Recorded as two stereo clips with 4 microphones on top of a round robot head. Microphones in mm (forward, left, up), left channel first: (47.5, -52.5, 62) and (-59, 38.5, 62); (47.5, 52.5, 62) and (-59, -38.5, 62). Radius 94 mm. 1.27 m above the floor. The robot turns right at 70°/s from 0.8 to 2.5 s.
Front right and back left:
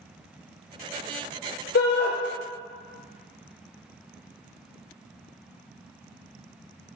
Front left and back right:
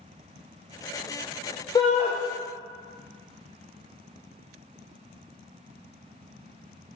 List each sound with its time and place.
1.8 s a shout: 30° right, 0.5 m; by 2.1 s 5° right, 0.5 m